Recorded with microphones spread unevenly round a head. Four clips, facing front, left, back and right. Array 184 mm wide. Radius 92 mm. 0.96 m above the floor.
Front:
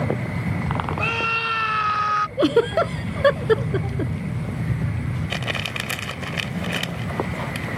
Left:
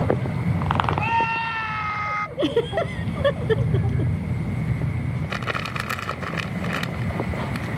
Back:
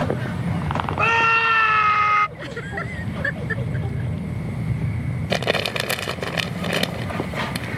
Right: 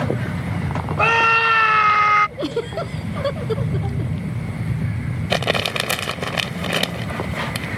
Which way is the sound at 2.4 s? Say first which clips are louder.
Left 2 dB, front 13 dB; 10° left.